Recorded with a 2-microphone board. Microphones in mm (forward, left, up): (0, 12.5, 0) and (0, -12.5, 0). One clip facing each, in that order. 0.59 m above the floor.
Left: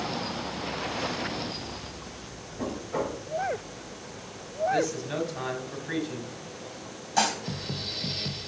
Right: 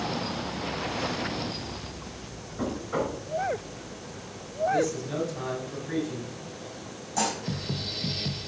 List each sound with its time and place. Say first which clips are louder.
2.6 s knocking: right 2 dB; 70° right (ahead or behind), 5 m
4.7 s a man speaking: right 1 dB; 25° left (ahead or behind), 3 m
7.2 s dishes clattering: left 3 dB; 35° left (ahead or behind), 2 m